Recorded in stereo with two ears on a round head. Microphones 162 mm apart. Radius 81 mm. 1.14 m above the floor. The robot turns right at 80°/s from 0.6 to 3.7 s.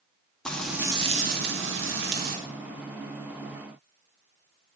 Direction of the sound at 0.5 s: 175° left.